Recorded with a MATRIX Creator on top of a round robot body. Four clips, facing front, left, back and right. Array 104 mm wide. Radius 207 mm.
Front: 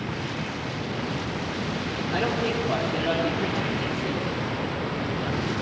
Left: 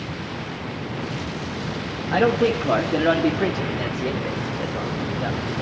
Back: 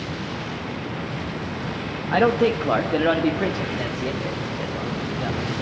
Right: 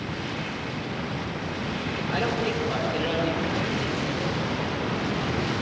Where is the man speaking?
150° left, 1.3 m; by 5.6 s 125° left, 3 m.